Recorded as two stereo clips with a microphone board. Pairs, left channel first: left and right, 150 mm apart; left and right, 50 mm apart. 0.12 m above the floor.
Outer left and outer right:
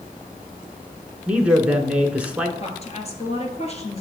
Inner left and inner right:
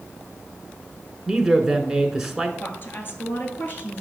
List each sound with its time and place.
1.3 s a man speaking: 10° right (ahead or behind), 1.1 m
2.6 s a woman speaking: 45° left (ahead or behind), 1.8 m